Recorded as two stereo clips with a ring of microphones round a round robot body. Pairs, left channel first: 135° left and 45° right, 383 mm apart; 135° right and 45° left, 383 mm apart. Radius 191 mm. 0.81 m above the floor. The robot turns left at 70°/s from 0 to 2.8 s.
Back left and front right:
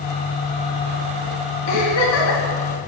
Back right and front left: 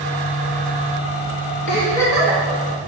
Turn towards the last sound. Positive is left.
turn(degrees=90)